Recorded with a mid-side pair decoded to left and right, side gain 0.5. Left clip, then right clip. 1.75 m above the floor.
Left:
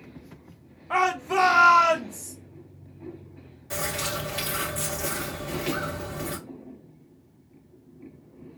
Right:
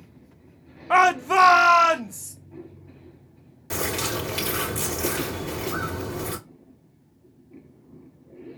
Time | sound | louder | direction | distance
0.9 | a shout | right 6 dB | 50° right | 0.7 m
3.7 | a bird | right 2 dB | 50° right | 2.5 m